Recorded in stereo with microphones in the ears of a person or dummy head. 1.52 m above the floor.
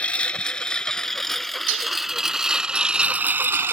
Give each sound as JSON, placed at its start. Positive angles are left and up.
{"t": 0.0, "sound": "a lawn mower", "side_deg": 10}
{"t": 1.7, "sound": "dishes clattering", "side_deg": -75}